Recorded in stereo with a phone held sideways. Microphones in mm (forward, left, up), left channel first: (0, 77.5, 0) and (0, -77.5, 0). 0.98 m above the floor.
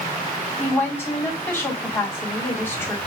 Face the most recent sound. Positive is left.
turn(degrees=15)  # may be behind; listen again after turning